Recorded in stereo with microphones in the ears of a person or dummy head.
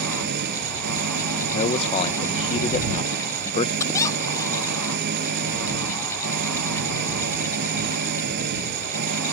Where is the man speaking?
35° left (ahead or behind).